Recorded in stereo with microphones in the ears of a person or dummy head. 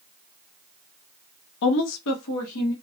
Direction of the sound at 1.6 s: 60° left (ahead or behind).